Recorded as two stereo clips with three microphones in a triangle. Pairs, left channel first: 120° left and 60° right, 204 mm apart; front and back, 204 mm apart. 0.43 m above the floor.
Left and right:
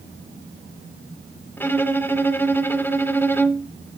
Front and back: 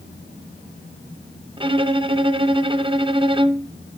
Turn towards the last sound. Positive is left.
turn(degrees=-175)